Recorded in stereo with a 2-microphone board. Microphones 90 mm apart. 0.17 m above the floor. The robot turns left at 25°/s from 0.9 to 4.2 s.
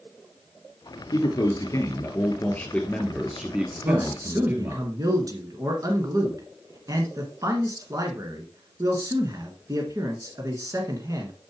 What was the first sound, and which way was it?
A man speaking, 50° left.